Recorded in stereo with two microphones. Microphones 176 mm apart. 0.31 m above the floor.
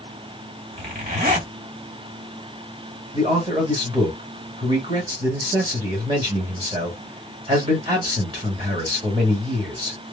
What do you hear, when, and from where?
0.8 s a zipper: 50° right (ahead or behind), 1.3 m
3.1 s a man speaking: 35° right (ahead or behind), 1.7 m